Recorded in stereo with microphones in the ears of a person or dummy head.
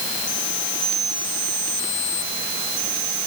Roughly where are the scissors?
I don't hear scissors.